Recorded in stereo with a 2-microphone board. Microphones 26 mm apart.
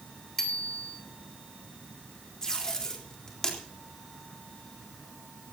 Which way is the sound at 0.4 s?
15° left (ahead or behind).